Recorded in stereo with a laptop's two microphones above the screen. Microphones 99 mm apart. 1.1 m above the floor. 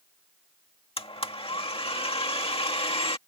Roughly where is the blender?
Left.